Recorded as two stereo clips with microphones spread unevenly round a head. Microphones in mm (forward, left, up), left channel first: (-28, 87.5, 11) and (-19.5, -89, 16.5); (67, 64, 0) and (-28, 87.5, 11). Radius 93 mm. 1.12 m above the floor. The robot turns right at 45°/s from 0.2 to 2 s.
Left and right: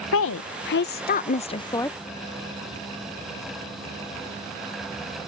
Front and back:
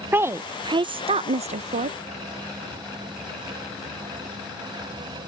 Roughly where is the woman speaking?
Left.